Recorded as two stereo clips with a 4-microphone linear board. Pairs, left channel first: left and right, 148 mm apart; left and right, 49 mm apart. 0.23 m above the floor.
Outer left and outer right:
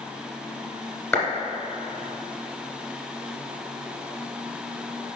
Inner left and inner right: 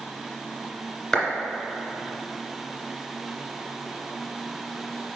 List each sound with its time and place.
1.1 s a clap: 15° left (ahead or behind), 2 m